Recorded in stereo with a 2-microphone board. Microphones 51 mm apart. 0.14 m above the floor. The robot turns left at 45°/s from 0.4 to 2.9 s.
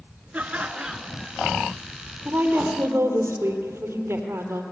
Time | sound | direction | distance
0.3 | laughter | 135° right | 1.9 m
2.2 | a woman speaking | 30° right (ahead or behind) | 3.5 m